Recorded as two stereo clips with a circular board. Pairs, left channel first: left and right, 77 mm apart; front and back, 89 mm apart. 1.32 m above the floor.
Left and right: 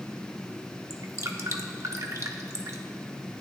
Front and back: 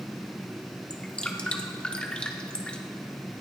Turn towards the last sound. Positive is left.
turn(degrees=-75)